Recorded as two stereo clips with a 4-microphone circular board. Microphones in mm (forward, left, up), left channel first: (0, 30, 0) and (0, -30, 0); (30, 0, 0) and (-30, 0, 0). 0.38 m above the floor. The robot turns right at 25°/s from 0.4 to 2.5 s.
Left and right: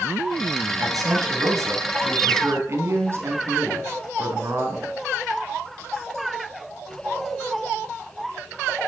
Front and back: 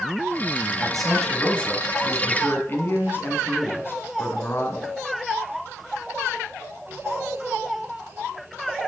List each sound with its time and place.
0.8 s a man speaking: 95° right, 3 m; by 4.9 s 50° right, 3 m